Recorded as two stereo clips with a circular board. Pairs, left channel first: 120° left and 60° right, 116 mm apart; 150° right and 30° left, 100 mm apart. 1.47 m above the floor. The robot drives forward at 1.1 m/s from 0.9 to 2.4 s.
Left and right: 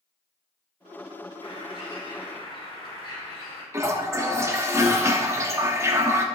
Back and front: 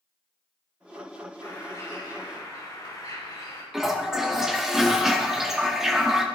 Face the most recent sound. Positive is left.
turn(degrees=-50)